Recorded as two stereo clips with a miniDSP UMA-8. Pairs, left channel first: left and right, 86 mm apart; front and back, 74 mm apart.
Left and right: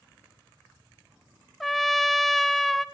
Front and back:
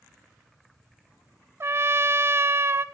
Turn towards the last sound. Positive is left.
turn(degrees=175)